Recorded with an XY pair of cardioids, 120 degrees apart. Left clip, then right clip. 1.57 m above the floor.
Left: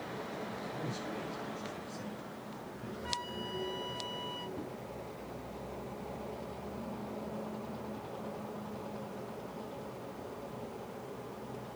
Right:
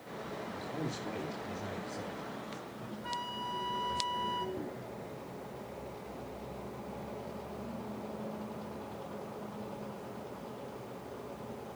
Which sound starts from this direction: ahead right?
A man speaking, at 0.5 s.